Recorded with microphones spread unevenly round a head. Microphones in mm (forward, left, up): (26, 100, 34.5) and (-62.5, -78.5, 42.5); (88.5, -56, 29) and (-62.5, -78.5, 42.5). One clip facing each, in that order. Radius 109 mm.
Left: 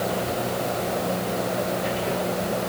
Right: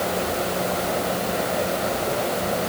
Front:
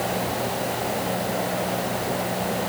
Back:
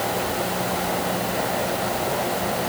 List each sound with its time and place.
Only background noise.